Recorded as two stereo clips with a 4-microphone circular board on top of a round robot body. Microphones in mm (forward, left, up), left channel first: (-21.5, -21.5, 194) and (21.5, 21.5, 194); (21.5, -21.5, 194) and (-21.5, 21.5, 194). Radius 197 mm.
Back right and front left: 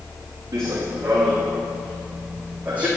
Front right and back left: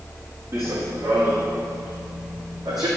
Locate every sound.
0.5 s running footsteps: 90° left, 3 m; by 2.9 s 115° left, 2.5 m